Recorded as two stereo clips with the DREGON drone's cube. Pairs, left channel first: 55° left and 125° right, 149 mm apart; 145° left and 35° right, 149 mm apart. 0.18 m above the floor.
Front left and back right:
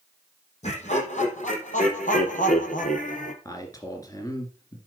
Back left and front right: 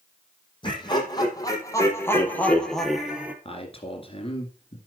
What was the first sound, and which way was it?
Laughter, 90° left.